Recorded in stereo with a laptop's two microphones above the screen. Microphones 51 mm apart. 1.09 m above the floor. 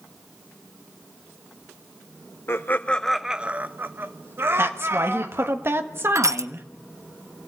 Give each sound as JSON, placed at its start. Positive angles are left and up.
{"t": 2.5, "sound": "laughter", "side_deg": 50, "distance_m": 0.7}
{"t": 4.6, "sound": "a woman speaking", "side_deg": -50, "distance_m": 1.5}
{"t": 6.2, "sound": "crushing", "side_deg": -75, "distance_m": 0.6}